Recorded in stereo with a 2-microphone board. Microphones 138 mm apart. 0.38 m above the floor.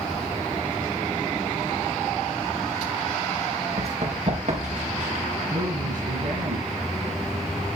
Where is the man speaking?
80° right, 8.5 m.